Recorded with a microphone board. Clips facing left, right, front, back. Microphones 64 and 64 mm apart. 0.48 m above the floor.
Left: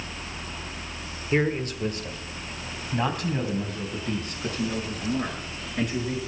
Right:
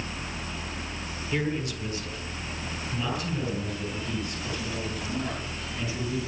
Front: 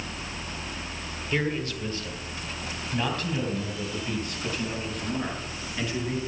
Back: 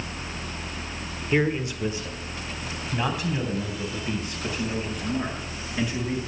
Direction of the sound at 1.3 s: 120° left.